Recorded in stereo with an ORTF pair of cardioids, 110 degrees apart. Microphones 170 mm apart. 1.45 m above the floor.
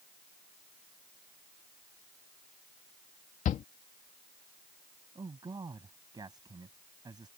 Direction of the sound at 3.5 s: 50° left.